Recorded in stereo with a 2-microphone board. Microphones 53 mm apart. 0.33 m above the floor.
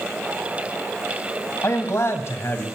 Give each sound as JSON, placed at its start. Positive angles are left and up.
{"t": 1.6, "sound": "a man speaking", "side_deg": 60, "distance_m": 2.0}